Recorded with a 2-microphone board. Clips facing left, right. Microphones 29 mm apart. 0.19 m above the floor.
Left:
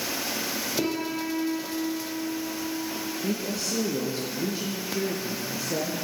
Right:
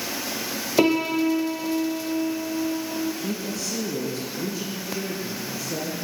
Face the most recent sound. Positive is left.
turn(degrees=15)  # may be behind; listen again after turning